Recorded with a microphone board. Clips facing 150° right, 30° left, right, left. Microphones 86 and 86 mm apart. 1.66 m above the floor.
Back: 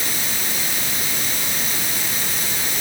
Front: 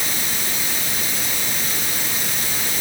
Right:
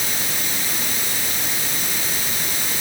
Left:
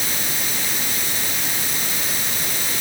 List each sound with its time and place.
Only background noise.